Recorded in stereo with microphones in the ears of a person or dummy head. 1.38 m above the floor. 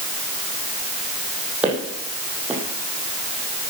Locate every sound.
1.6 s footsteps: 5° right (ahead or behind), 3.5 m